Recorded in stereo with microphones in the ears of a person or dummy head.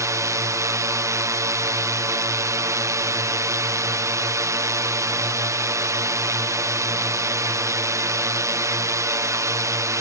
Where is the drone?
10° right (ahead or behind).